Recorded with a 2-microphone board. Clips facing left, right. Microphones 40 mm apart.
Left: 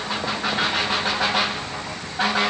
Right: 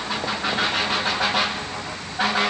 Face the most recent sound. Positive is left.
No sound to turn to.